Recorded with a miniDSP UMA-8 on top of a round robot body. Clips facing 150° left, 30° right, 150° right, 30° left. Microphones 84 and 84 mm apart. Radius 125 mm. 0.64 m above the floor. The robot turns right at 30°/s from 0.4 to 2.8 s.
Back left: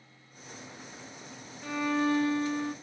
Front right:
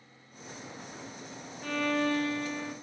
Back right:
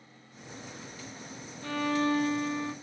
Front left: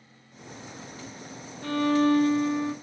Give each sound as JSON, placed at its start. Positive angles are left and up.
{"t": 1.6, "sound": "a violin", "azimuth_deg": 60, "distance_m": 0.8}